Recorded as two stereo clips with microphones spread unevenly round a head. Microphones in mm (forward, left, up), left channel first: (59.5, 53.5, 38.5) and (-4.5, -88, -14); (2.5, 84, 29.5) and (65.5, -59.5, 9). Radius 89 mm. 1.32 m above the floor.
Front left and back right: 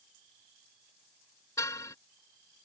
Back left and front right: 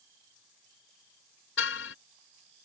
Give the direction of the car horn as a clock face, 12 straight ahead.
7 o'clock.